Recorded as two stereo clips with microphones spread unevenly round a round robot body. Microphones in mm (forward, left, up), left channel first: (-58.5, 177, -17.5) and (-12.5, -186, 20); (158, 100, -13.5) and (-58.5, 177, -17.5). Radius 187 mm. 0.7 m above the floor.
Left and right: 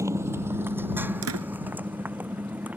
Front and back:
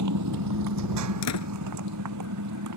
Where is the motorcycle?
165° right; by 2.8 s 170° right.